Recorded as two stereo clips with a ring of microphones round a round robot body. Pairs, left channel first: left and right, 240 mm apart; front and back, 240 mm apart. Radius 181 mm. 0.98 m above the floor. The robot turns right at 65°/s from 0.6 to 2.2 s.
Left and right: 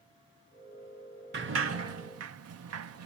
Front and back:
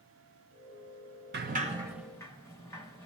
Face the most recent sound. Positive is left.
turn(degrees=-80)